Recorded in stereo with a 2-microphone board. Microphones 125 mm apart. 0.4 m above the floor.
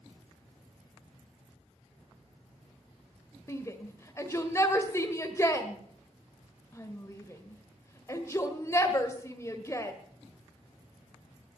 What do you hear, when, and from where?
3.5 s a shout: 25° left (ahead or behind), 1.5 m